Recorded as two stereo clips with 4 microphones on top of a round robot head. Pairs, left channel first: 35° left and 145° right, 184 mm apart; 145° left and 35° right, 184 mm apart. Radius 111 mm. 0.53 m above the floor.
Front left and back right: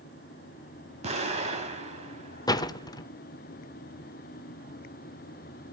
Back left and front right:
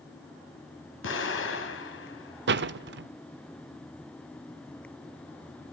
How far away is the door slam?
About 1.3 m.